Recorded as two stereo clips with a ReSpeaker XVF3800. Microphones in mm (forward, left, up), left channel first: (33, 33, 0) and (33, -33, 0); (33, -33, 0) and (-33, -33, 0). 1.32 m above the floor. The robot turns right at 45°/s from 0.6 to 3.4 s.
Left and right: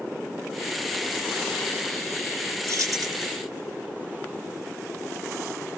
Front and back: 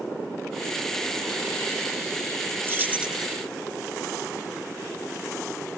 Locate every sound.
2.6 s keys jangling: 125° right; by 3.2 s 100° right